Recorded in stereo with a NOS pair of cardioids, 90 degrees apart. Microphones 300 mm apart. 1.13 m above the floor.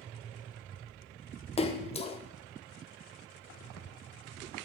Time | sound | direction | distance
1.6 | a splash | 20° left | 0.6 m